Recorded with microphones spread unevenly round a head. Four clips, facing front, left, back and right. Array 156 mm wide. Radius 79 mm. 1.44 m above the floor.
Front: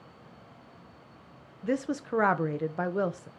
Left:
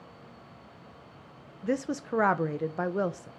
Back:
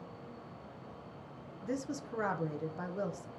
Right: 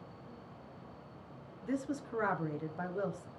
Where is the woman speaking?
50° left, 0.8 m.